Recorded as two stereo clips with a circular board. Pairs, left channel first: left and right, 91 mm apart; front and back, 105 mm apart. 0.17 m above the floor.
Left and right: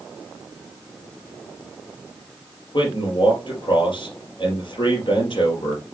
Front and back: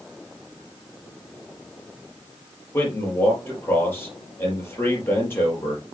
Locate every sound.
2.7 s a man speaking: 65° left, 4.5 m